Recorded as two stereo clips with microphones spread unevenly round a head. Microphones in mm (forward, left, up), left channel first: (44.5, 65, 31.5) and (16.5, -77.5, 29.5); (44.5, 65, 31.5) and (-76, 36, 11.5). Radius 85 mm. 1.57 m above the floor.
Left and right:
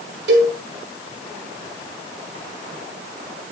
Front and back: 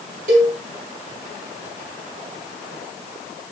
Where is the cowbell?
130° right, 5 m.